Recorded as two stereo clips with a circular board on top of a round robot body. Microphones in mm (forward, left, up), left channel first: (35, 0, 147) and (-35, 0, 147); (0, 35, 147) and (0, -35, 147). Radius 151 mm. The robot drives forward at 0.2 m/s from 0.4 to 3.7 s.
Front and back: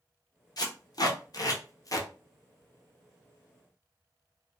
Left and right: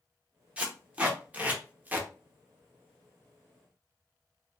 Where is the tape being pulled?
20° right, 0.9 m; by 2.1 s 30° right, 0.7 m.